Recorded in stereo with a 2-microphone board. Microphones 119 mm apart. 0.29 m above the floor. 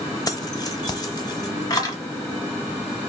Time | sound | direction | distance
0.3 | keys jangling | 30° left (ahead or behind) | 0.8 m